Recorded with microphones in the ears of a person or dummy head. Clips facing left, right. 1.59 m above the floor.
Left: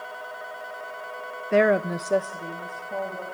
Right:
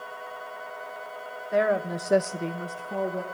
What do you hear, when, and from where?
1.5 s a woman speaking: 45° left (ahead or behind), 0.9 m; by 3.2 s 75° right (ahead or behind), 1.6 m